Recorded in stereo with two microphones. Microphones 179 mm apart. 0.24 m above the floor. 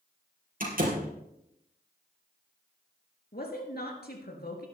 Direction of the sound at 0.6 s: 55° right (ahead or behind).